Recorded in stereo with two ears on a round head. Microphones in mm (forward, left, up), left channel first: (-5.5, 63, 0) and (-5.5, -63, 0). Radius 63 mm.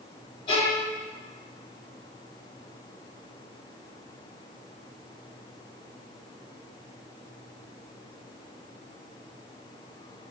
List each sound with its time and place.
0.5 s a violin: 35° left (ahead or behind), 0.8 m